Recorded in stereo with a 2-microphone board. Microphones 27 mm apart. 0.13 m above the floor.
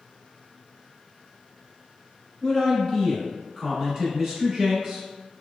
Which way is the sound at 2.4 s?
20° left (ahead or behind).